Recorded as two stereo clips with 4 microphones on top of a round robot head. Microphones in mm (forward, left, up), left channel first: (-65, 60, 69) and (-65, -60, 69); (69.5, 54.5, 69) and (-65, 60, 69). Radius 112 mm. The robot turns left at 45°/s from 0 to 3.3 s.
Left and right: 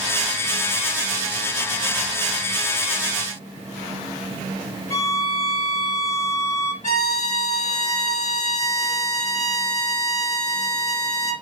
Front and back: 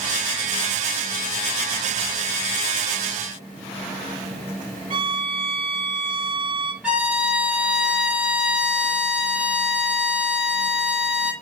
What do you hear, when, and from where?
4.9 s a violin: 125° left, 2.5 m
6.8 s a violin: 95° left, 4.5 m